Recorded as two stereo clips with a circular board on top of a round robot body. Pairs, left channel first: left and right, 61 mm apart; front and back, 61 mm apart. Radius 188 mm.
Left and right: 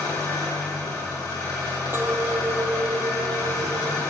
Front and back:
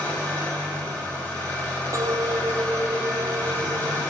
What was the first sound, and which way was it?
An engine running, 60° left.